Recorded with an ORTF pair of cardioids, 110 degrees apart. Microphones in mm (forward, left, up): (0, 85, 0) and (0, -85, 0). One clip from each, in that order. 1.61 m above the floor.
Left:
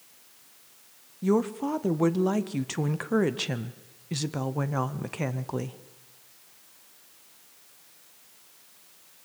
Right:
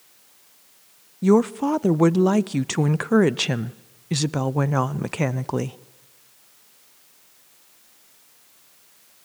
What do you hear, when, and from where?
1.2 s a woman speaking: 30° right, 0.6 m